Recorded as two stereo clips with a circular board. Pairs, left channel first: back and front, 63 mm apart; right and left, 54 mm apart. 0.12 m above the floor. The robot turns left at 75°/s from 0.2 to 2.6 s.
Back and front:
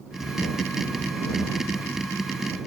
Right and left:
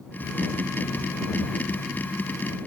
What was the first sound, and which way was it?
Only background noise.